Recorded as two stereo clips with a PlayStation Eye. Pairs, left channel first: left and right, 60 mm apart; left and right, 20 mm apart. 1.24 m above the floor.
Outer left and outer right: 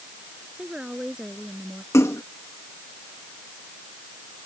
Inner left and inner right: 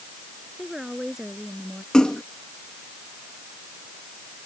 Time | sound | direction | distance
0.6 | a woman speaking | 15° right (ahead or behind) | ?
1.9 | a splash | 55° left (ahead or behind) | ?